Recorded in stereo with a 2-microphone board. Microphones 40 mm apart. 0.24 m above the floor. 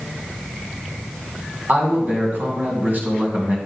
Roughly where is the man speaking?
Right.